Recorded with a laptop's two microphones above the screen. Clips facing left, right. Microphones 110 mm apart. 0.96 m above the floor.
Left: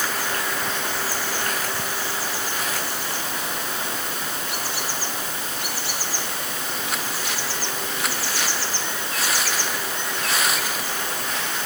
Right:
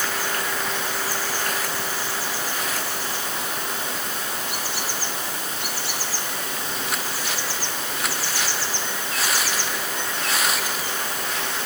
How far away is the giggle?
I don't hear a giggle.